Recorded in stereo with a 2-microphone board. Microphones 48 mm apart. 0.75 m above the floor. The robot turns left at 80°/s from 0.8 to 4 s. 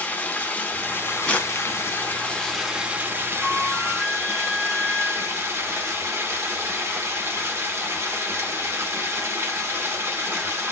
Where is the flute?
165° right, 0.6 m; by 5.5 s 150° left, 0.6 m.